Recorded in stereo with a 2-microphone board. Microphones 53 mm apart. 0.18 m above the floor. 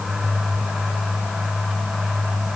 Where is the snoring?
I don't hear snoring.